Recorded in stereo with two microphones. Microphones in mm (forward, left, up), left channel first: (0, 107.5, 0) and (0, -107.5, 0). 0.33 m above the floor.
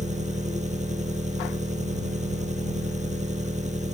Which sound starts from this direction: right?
An engine running, at 0.0 s.